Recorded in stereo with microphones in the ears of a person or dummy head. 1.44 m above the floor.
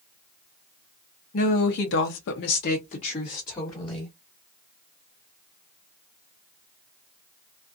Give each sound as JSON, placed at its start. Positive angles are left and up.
{"t": 1.3, "sound": "a woman speaking", "side_deg": 50, "distance_m": 0.8}